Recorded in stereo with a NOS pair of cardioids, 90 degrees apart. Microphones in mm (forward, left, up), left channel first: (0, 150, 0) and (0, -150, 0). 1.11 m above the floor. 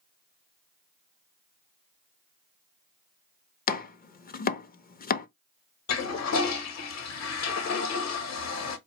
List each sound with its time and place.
3.7 s chopping: 30° left, 0.5 m
5.9 s a toilet flushing: 60° left, 0.9 m